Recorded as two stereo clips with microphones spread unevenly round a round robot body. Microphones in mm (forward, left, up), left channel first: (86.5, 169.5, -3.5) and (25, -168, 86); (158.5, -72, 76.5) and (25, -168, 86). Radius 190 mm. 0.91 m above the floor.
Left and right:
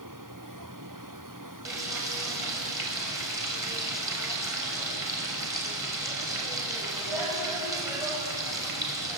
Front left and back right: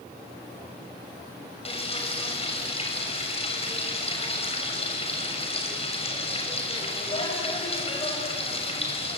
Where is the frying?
15° right, 7 m.